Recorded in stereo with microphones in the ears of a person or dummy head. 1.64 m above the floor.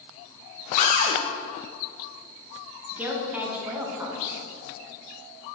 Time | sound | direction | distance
0.8 | a cupboard door | 45° left (ahead or behind) | 1.1 m
2.9 | a woman speaking | 10° right (ahead or behind) | 1.6 m